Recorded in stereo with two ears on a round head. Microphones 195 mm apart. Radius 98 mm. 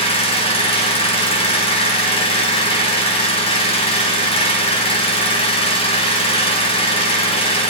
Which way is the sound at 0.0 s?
30° left (ahead or behind).